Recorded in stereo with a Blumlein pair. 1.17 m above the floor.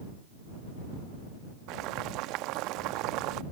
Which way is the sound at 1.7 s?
40° right.